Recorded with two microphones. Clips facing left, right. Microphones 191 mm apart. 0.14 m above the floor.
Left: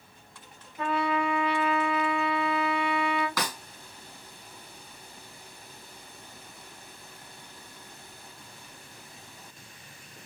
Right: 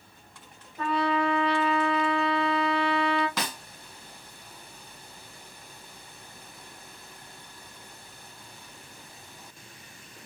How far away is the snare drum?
About 1.5 m.